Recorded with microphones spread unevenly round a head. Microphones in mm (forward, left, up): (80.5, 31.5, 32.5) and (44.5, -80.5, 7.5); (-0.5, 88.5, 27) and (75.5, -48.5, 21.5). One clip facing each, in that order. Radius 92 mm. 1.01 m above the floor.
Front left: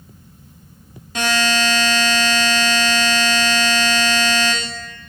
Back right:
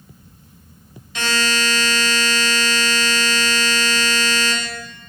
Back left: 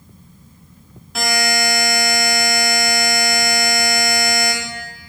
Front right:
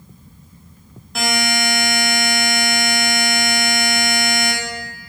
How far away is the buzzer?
About 2 m.